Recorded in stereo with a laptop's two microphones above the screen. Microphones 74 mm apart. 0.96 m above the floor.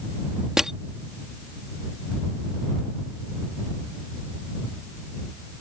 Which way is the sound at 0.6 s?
5° right (ahead or behind).